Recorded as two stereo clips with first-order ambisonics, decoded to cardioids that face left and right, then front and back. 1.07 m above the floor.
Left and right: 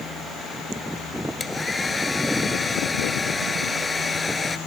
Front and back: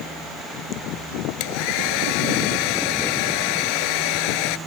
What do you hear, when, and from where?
1.4 s a hair dryer: 10° left